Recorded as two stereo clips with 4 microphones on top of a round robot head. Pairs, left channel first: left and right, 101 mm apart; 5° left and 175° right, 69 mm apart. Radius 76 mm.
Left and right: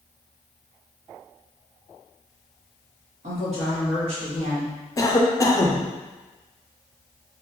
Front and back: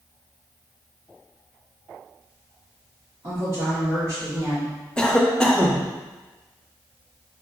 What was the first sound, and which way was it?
A woman speaking, 115° right.